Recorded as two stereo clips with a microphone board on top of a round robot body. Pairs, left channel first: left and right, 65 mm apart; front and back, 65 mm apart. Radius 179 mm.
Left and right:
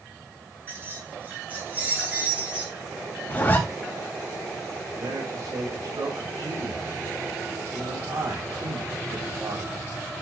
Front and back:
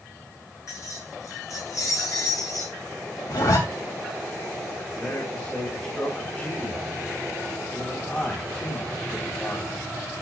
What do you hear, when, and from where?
0.7 s keys jangling: 35° right, 6.5 m; by 2.8 s 20° right, 6 m
3.3 s a zipper: 25° left, 3 m
5.0 s a man speaking: 75° right, 4.5 m